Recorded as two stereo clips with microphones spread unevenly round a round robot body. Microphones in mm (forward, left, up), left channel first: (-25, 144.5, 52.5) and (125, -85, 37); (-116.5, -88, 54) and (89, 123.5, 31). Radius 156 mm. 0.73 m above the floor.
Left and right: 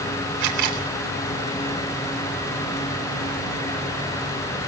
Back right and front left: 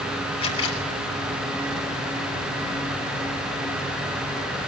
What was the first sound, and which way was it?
A camera shutter, 60° right.